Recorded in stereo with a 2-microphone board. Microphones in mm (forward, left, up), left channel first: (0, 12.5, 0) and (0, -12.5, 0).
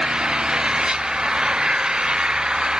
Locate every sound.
0.0 s an engine running: 30° right (ahead or behind)